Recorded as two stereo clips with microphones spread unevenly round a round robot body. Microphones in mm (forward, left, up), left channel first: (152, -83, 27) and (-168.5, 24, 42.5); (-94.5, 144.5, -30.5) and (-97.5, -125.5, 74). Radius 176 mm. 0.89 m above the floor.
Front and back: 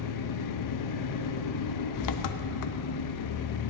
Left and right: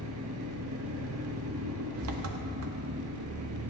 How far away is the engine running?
About 0.8 m.